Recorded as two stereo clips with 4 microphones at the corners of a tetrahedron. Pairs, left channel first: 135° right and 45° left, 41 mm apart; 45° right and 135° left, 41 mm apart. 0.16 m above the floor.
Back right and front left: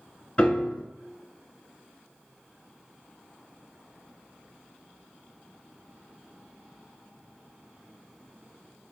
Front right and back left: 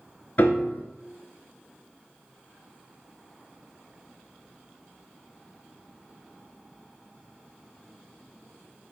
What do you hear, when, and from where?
0.4 s a piano: 80° right, 0.6 m